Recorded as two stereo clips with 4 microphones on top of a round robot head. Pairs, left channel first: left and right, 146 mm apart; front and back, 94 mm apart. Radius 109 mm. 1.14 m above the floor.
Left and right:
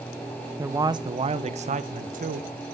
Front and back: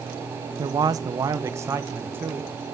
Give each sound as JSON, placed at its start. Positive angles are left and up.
{"t": 0.6, "sound": "a man speaking", "azimuth_deg": -160, "distance_m": 0.9}